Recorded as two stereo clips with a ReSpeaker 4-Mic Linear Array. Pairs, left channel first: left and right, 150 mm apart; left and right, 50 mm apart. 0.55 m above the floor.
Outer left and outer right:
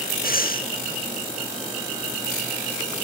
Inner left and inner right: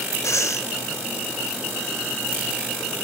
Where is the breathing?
75° left (ahead or behind), 0.8 m.